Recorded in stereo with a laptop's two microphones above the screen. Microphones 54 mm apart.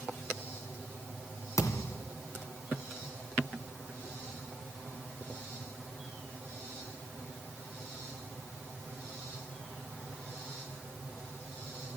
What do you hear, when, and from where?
1.6 s a thud: 70° left (ahead or behind), 2.5 m